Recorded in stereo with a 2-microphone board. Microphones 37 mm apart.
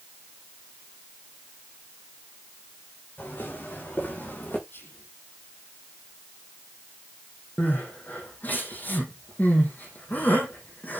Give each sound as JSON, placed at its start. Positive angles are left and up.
{"t": 3.2, "sound": "footsteps", "side_deg": 65, "distance_m": 7.0}
{"t": 4.7, "sound": "whispering", "side_deg": 65, "distance_m": 6.0}
{"t": 7.6, "sound": "crying", "side_deg": 50, "distance_m": 3.5}